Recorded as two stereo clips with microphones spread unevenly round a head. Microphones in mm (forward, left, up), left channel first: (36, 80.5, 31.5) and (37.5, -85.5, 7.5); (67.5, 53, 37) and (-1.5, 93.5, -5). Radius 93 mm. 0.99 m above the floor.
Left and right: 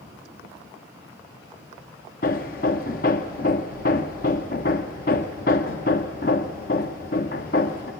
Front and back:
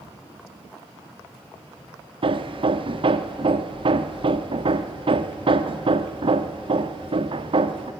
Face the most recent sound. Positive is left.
turn(degrees=135)